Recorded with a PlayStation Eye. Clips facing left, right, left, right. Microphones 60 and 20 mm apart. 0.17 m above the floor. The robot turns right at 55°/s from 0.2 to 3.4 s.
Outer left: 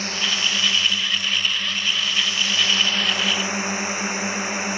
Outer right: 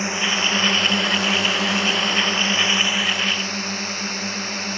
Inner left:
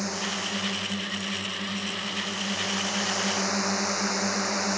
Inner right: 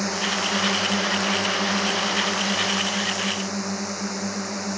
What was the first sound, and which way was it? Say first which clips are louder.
A drone: outer right 3 dB, inner right 6 dB; 160° right.